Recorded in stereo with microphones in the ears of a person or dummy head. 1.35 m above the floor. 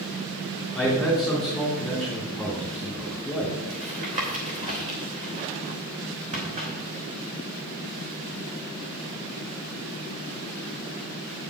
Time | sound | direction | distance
0.8 | a man speaking | centre (ahead or behind) | 3 m
3.7 | tapping | 40° right (ahead or behind) | 3 m